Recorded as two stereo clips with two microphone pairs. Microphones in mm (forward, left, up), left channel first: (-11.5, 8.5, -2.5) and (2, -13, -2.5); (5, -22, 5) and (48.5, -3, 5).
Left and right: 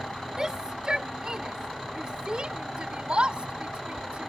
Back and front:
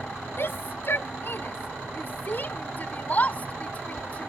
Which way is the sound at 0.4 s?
120° right.